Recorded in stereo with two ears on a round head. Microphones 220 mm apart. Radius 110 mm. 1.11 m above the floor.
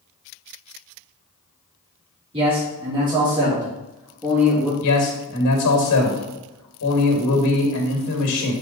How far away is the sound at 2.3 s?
About 3 m.